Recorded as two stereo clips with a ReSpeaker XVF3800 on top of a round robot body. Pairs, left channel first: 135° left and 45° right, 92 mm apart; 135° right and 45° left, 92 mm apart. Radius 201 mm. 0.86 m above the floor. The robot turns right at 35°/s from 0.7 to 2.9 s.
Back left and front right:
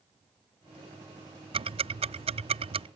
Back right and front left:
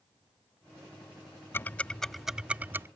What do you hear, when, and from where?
1.5 s ticking: 70° right; by 2.9 s 20° right